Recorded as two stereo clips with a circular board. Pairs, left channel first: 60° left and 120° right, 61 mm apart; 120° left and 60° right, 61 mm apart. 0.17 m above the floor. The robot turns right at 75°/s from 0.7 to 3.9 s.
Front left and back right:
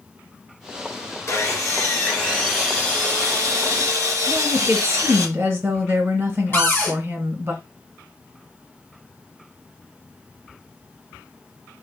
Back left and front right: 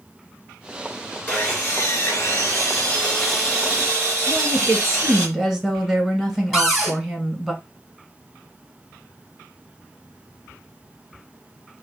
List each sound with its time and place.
1.3 s sawing: 55° left, 2.5 m; by 5.3 s 105° right, 2.5 m
4.3 s a woman speaking: 140° right, 1.4 m
6.5 s a cupboard door: 30° left, 1.6 m